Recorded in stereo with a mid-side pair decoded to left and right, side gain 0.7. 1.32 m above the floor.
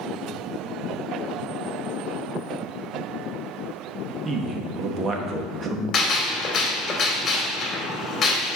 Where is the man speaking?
30° right, 1.5 m.